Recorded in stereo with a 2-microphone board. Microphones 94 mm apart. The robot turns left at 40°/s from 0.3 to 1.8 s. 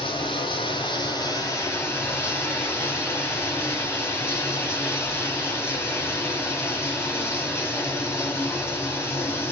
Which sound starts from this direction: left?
Running water, at 0.0 s.